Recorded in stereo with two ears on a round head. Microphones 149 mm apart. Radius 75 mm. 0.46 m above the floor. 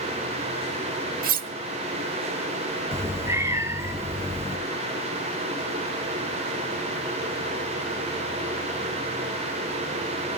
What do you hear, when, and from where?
1.2 s cutlery clinking: 55° right (ahead or behind), 1.0 m
2.9 s a cat meowing: 15° right (ahead or behind), 2 m